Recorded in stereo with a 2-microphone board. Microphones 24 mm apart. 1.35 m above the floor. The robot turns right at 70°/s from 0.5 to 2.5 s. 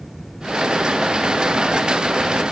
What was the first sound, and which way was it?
Only background noise.